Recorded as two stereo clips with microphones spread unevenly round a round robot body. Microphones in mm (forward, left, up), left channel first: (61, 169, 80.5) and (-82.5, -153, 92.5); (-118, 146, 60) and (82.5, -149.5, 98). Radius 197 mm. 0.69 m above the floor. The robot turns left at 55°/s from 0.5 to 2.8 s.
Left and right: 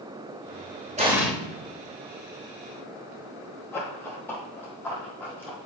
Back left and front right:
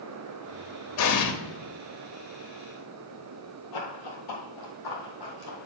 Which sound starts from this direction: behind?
An explosion, at 1.0 s.